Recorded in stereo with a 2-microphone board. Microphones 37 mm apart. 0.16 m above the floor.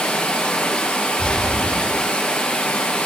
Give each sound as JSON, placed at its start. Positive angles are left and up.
{"t": 0.0, "sound": "running water", "side_deg": 40, "distance_m": 1.4}
{"t": 1.2, "sound": "a gunshot", "side_deg": 20, "distance_m": 4.0}